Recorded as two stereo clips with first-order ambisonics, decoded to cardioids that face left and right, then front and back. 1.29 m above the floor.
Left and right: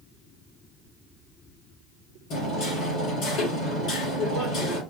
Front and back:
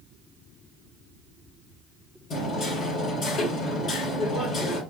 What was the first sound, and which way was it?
Hammering, 55° left.